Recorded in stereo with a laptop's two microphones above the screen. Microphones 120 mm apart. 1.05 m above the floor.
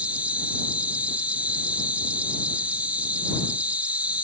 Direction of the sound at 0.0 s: 10° right (ahead or behind).